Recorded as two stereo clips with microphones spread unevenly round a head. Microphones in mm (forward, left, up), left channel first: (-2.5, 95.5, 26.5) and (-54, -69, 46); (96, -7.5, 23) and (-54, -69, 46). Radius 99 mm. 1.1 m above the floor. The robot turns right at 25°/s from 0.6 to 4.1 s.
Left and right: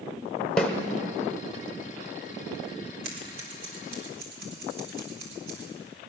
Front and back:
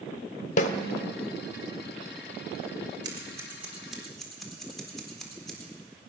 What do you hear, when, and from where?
0.6 s a snare drum: 20° right, 1.1 m; by 0.7 s 15° right, 1.1 m
3.0 s scissors: 90° right, 4 m; by 5.7 s 65° right, 4 m